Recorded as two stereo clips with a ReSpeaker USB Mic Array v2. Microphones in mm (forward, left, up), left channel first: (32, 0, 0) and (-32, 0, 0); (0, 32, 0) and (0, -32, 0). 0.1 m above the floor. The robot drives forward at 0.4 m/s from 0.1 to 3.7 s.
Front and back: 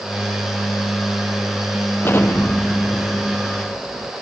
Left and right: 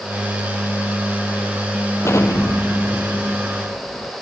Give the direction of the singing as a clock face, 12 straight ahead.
I don't hear singing.